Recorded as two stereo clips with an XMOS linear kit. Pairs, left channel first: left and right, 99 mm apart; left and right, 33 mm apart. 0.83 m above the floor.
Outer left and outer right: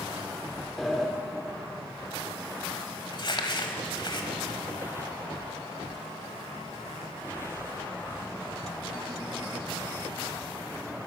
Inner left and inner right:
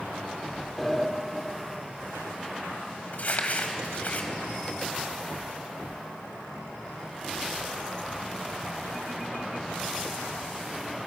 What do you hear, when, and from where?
0.8 s a sliding door: centre (ahead or behind), 1.6 m
3.1 s crumpling: 50° left (ahead or behind), 1.4 m